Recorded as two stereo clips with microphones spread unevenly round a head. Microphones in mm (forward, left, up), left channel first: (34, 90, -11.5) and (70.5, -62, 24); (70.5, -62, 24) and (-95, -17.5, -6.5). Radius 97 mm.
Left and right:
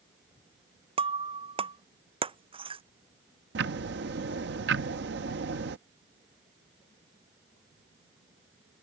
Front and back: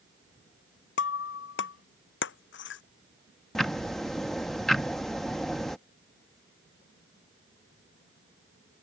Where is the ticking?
100° right.